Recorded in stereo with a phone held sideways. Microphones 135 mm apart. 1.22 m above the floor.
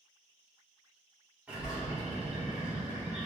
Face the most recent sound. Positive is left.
turn(degrees=-10)  # may be behind; listen again after turning